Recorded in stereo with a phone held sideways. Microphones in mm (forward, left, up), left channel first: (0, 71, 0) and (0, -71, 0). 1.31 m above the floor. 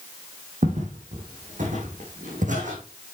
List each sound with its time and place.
0.6 s footsteps: 60° right (ahead or behind), 2.5 m